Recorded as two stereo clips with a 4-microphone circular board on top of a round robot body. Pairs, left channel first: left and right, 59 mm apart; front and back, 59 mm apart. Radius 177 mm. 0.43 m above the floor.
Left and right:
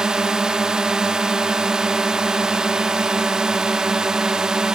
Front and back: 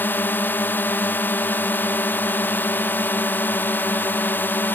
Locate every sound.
0.0 s a drone: 20° right